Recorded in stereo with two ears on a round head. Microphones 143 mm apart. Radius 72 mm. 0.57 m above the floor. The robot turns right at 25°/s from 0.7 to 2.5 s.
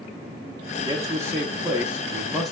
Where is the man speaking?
40° right, 0.7 m; by 2.5 s 5° left, 0.7 m.